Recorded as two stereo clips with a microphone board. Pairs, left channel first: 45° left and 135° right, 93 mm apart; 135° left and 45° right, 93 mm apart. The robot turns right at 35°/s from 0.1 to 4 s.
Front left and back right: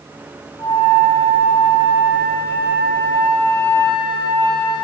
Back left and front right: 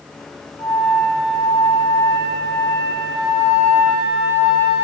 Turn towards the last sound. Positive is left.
turn(degrees=-155)